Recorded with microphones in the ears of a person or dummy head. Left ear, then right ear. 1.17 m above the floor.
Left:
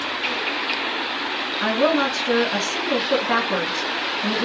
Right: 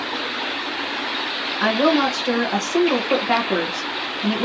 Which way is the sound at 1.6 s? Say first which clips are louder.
Right 2 dB; 40° right (ahead or behind).